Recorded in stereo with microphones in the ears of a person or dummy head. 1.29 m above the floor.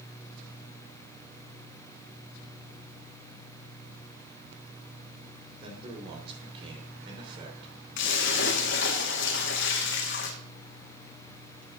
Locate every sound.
5.6 s a man speaking: 35° right (ahead or behind), 4 m
8.0 s a splash: 65° left (ahead or behind), 1.5 m